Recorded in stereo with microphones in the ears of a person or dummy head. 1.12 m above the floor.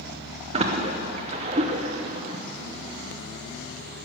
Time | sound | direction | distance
0.5 | a splash | 35° right (ahead or behind) | 0.9 m